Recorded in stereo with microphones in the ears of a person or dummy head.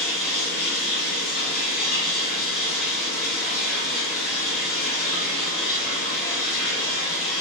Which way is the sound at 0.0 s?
30° left (ahead or behind).